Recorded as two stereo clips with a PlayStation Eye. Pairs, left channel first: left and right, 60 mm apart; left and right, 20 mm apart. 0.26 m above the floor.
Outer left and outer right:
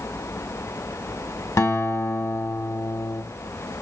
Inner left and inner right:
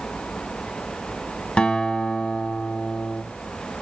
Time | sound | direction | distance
1.6 | a guitar | 60° left (ahead or behind) | 0.6 m